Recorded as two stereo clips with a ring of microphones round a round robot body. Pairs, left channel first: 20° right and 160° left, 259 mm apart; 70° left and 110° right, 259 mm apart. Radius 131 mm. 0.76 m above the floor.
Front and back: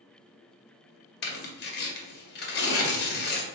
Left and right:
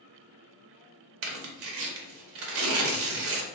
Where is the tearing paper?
75° right, 0.6 m.